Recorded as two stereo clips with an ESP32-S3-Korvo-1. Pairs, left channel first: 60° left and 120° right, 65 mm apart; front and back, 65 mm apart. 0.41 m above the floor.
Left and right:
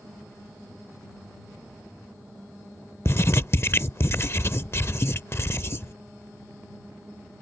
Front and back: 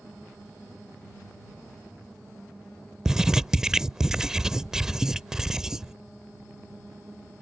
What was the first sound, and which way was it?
Writing, 100° left.